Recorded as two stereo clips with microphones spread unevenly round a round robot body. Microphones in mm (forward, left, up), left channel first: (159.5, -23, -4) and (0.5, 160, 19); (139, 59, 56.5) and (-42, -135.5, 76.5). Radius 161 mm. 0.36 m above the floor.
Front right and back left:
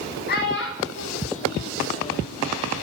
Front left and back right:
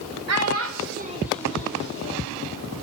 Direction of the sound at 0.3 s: 105° right.